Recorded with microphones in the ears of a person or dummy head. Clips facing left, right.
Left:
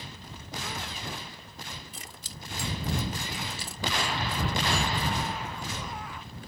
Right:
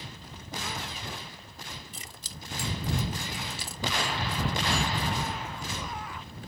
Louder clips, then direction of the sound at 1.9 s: Even; 80° right.